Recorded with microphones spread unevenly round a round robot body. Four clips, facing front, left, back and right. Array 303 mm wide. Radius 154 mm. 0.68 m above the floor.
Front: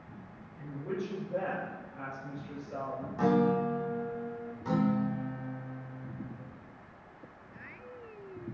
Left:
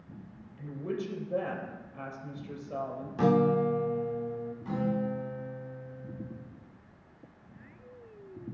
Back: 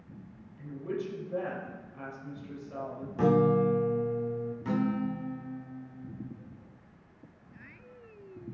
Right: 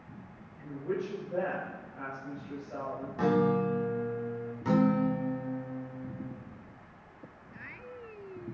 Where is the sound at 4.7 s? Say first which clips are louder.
Right 6 dB, front 2 dB; 90° right, 0.9 m.